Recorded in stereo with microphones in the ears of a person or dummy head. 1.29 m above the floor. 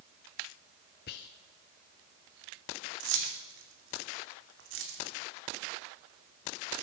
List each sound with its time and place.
1.1 s whispering: 60° left (ahead or behind), 0.5 m
3.0 s keys jangling: 75° right (ahead or behind), 2.5 m